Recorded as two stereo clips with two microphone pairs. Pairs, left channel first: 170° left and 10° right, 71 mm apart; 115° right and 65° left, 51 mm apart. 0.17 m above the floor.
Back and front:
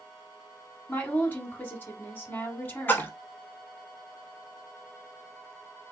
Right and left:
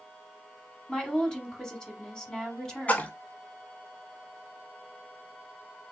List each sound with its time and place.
0.9 s a woman speaking: straight behind, 1.1 m
2.9 s a splash: 155° right, 0.7 m